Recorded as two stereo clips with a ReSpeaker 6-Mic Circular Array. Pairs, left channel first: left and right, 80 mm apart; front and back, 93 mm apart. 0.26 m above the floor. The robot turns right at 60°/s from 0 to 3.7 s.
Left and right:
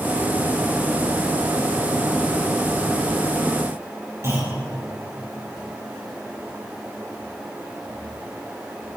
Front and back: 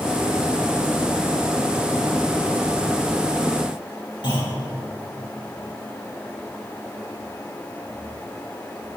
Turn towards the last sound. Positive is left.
turn(degrees=-35)